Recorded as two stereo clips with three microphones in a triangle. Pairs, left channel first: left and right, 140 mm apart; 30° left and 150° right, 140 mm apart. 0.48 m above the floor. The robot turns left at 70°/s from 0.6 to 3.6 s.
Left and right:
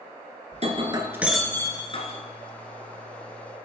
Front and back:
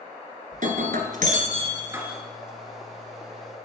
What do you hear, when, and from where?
0.5 s breaking glass: 125° right, 1.5 m; by 3.6 s 25° left, 1.5 m